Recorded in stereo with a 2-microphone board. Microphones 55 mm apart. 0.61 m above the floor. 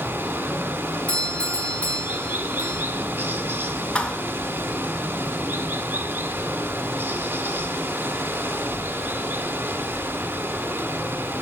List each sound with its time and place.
0.0 s running water: 45° right (ahead or behind), 0.8 m
1.1 s a doorbell: 25° left (ahead or behind), 1.2 m
4.0 s a thud: 15° left (ahead or behind), 0.6 m